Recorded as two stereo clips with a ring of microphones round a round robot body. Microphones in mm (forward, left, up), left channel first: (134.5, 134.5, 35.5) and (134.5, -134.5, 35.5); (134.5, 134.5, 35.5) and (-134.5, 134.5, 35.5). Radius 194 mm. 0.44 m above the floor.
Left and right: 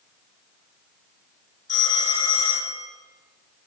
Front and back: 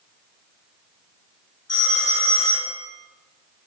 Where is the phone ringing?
30° left, 4.5 m.